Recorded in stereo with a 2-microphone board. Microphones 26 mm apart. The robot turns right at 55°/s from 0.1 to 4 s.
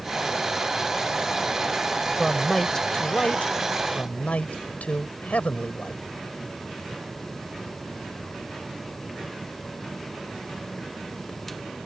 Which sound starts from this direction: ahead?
A man speaking, at 2.2 s.